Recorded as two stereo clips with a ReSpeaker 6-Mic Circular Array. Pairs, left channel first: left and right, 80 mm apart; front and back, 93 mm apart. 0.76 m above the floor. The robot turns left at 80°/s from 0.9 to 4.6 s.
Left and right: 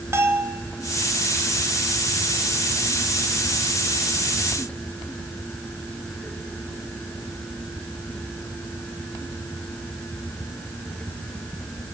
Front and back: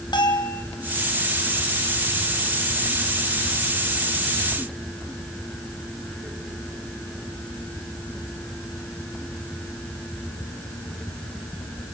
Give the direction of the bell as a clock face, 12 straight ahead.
1 o'clock.